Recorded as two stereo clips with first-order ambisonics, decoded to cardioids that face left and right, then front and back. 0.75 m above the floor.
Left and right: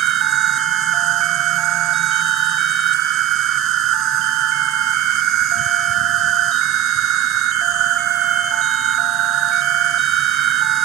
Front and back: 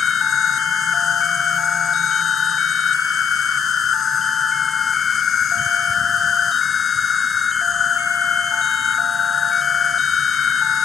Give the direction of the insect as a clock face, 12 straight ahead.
2 o'clock.